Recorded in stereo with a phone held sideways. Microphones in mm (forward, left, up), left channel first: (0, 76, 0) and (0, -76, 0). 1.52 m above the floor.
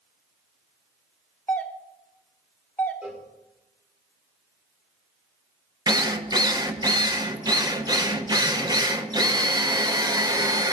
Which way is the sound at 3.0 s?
5° right (ahead or behind).